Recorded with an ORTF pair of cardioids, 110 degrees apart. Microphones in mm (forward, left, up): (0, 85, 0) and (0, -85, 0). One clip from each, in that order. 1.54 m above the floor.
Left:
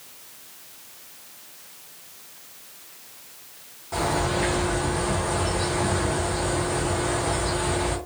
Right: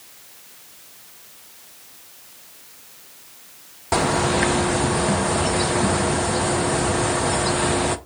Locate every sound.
3.9 s a bird: 65° right, 0.6 m